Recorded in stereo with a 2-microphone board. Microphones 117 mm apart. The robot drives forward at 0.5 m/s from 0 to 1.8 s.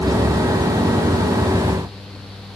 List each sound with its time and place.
Only background noise.